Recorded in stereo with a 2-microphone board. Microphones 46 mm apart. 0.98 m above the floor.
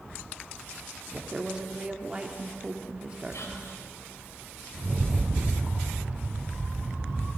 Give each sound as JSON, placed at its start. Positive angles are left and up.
{"t": 1.1, "sound": "a woman speaking", "side_deg": -25, "distance_m": 1.8}
{"t": 3.3, "sound": "whispering", "side_deg": 80, "distance_m": 5.0}
{"t": 4.7, "sound": "a rattle", "side_deg": -65, "distance_m": 8.5}